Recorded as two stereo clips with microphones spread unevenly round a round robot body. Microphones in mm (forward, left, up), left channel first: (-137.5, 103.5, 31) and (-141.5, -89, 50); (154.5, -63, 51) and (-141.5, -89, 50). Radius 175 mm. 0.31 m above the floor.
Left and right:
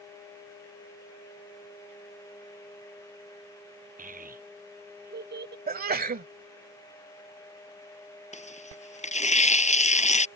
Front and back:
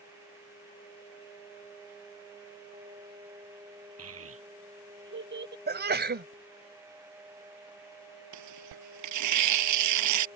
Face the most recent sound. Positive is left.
turn(degrees=145)